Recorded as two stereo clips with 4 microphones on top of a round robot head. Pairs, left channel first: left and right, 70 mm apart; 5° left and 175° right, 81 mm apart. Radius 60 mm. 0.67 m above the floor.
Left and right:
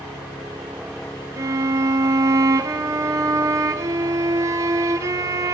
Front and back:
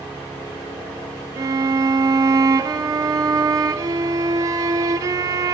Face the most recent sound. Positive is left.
turn(degrees=-130)